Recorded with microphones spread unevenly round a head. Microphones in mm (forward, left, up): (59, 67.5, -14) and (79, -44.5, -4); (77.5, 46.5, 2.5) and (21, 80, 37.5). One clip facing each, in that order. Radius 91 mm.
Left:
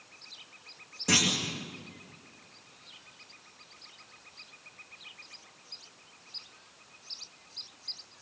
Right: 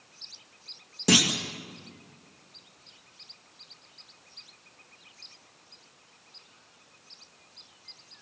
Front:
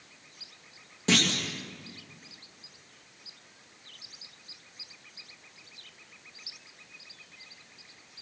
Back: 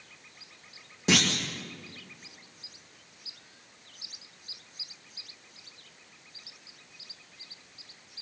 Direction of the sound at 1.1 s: 120° right.